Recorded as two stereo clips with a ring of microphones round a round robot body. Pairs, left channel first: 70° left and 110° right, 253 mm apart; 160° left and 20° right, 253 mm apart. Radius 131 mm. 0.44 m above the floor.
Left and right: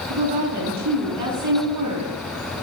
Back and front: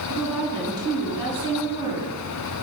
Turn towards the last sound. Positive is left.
turn(degrees=-100)